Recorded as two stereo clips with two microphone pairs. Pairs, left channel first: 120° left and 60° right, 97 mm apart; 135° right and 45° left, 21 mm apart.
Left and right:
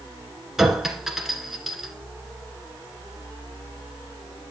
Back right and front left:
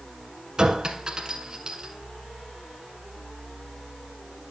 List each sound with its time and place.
0.6 s a clink: 25° left, 1.3 m